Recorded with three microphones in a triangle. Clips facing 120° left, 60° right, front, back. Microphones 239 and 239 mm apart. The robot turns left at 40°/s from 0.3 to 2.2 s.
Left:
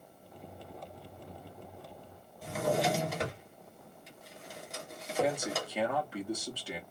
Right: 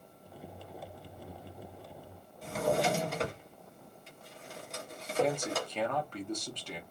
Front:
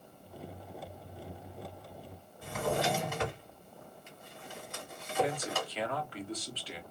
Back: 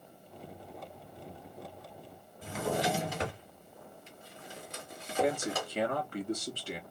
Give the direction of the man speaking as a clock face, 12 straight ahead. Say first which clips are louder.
Right 1 dB, back 2 dB; 5 o'clock.